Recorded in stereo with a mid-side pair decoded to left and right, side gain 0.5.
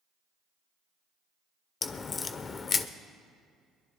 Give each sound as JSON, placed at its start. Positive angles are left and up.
{"t": 1.8, "sound": "a crack", "azimuth_deg": 40, "distance_m": 0.8}